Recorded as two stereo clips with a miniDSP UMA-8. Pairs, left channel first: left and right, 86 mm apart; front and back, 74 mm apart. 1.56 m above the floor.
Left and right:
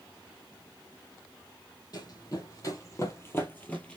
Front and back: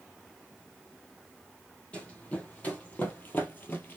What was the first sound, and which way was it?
Running footsteps, 70° left.